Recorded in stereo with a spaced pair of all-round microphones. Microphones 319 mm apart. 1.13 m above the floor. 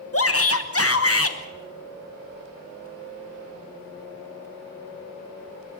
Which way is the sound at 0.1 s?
45° left (ahead or behind).